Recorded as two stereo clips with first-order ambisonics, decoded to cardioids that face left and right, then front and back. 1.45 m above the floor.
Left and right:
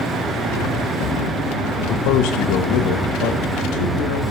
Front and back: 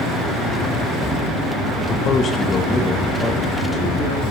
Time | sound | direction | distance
1.9 | a man speaking | 55° left | 1.2 m